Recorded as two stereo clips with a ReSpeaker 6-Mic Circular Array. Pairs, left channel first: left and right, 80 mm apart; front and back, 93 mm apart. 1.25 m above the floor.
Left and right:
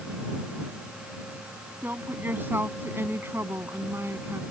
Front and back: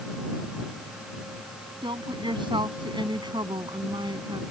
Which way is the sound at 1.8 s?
155° right.